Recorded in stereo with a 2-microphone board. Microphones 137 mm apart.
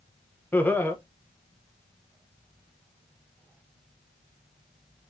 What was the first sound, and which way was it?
Laughter, 15° left (ahead or behind).